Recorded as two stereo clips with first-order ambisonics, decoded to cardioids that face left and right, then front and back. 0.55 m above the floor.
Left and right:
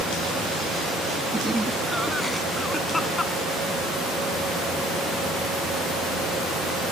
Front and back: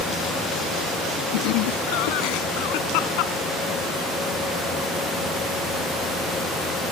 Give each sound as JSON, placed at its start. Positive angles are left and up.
{"t": 1.3, "sound": "laughter", "azimuth_deg": -10}